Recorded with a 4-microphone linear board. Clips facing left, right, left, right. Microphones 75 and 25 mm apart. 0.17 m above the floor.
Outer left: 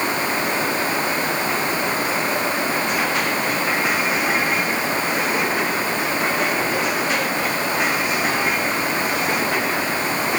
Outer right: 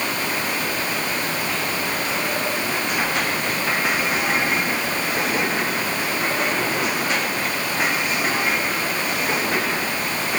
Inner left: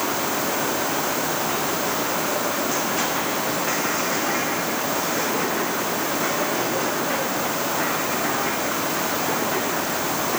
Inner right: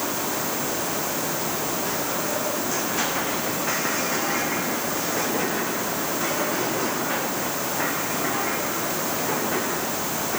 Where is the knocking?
I don't hear knocking.